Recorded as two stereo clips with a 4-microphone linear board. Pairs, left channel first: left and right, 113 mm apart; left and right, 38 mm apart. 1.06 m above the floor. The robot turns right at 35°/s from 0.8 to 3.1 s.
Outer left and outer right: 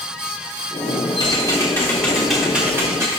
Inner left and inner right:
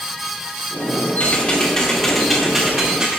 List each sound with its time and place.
1.2 s typing on a keyboard: 140° left, 2.5 m; by 3.2 s 155° right, 2.5 m